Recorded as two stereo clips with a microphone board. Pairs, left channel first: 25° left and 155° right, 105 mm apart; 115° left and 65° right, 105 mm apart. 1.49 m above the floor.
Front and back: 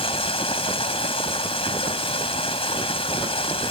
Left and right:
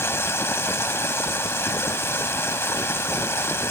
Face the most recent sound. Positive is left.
turn(degrees=45)